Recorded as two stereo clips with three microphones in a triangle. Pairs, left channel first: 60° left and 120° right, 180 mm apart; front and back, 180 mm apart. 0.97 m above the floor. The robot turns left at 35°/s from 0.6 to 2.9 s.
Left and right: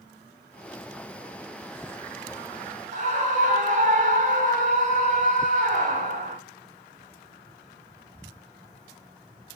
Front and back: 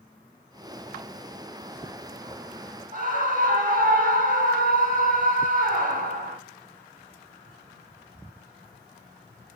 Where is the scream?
155° right, 1.4 m.